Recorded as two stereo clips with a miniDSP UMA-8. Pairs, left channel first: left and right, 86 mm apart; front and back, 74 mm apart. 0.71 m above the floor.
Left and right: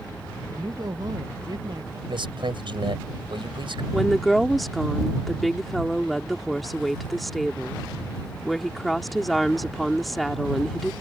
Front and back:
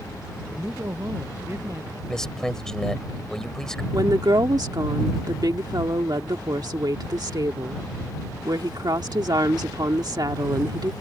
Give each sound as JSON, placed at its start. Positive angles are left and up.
{"t": 0.5, "sound": "a woman speaking", "azimuth_deg": -130}
{"t": 2.1, "sound": "a man speaking", "azimuth_deg": -80}
{"t": 3.9, "sound": "a woman speaking", "azimuth_deg": 175}